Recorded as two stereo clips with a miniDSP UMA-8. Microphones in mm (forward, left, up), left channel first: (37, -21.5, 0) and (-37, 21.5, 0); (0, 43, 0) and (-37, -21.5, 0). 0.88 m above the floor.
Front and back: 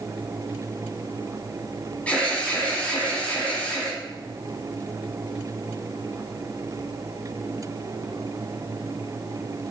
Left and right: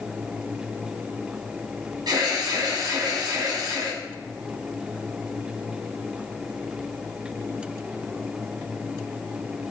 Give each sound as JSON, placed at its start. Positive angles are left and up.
{"t": 2.1, "sound": "an alarm", "azimuth_deg": -105, "distance_m": 5.0}